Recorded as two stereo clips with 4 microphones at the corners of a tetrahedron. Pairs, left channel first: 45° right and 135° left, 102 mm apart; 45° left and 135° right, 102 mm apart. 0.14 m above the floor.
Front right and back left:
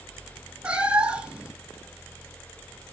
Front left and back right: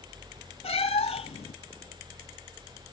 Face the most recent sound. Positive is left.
turn(degrees=55)